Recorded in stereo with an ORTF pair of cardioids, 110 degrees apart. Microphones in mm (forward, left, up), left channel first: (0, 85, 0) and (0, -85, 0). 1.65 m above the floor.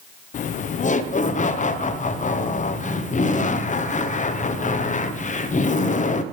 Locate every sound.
0.3 s laughter: 45° left, 0.9 m